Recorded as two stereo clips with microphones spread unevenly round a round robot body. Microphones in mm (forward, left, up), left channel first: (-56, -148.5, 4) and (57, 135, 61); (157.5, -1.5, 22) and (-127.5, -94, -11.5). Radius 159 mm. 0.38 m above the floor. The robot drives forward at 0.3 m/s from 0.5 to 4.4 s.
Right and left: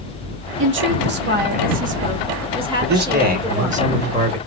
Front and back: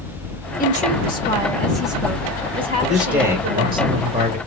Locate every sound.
0.6 s a woman speaking: 60° left, 0.8 m; by 3.8 s 160° left, 1.1 m
2.8 s a man speaking: 120° left, 1.0 m; by 4.4 s 145° left, 1.3 m